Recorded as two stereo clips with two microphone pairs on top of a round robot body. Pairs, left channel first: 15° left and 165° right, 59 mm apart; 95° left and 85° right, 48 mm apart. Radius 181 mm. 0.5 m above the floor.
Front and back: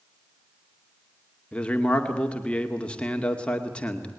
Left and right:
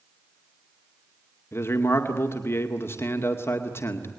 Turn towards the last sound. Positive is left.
turn(degrees=85)